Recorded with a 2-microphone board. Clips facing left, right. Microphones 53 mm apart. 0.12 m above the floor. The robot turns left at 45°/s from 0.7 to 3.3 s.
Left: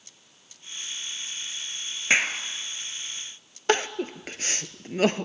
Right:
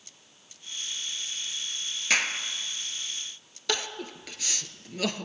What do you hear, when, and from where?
2.1 s a clap: 25° left (ahead or behind), 1.8 m; by 2.4 s 15° left (ahead or behind), 1.8 m
3.7 s crying: 40° left (ahead or behind), 0.7 m